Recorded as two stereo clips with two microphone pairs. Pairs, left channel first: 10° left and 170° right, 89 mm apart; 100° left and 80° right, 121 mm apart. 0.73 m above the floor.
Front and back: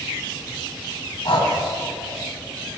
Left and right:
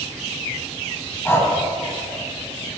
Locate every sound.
1.2 s breathing: 30° left, 1.8 m